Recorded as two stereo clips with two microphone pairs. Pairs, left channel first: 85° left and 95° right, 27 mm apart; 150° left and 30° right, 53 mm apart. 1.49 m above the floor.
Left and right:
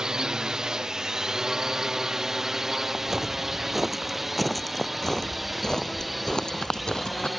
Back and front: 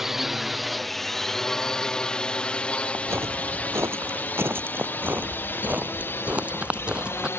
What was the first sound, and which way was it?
A drone, 105° right.